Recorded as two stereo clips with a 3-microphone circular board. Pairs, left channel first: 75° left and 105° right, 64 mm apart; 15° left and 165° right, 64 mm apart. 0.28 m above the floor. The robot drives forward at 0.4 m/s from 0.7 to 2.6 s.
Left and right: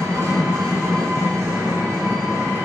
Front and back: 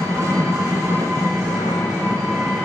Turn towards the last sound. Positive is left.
turn(degrees=-155)